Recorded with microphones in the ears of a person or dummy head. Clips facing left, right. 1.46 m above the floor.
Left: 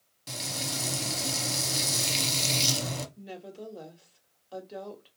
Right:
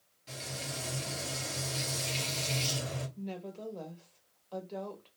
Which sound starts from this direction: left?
Frying, at 0.3 s.